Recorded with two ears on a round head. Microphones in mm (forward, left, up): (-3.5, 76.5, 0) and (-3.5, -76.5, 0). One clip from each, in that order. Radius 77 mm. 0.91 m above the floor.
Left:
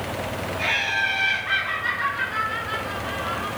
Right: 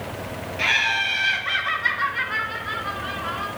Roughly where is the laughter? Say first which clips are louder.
Right 3 dB; right.